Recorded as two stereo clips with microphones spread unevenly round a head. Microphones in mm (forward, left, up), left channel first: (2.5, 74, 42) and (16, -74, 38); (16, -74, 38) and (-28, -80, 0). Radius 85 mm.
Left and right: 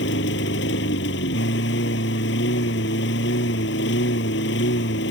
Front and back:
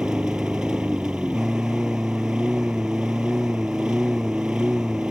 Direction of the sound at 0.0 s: 95° left.